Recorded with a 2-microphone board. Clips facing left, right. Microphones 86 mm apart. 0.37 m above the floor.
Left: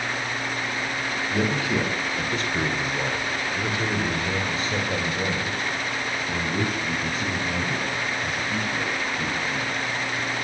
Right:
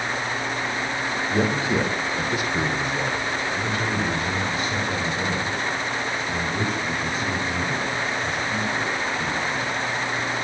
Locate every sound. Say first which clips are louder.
1.3 s a man speaking: right 2 dB; 35° right (ahead or behind), 1.8 m; by 9.7 s 55° left (ahead or behind), 5 m